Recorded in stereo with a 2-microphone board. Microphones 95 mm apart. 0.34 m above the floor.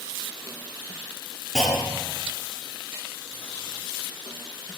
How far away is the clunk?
About 6.5 m.